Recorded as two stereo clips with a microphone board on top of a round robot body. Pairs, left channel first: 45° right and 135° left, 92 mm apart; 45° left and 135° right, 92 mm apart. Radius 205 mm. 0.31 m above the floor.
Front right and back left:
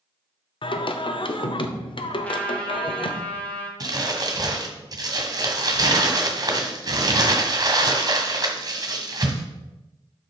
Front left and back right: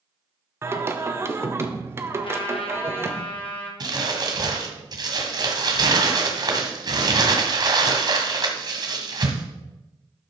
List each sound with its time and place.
0.6 s singing: 70° right, 0.8 m
2.2 s a trumpet: 30° left, 1.9 m
3.8 s crumpling: 175° right, 1.6 m